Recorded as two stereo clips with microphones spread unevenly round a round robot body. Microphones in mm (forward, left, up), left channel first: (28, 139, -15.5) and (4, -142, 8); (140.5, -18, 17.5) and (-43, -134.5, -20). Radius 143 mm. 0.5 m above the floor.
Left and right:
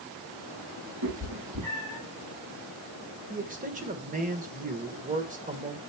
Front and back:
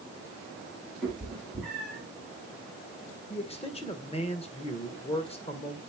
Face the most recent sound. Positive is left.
turn(degrees=-35)